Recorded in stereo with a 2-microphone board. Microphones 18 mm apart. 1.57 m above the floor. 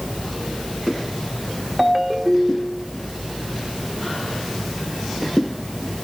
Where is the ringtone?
15° right (ahead or behind), 1.3 m.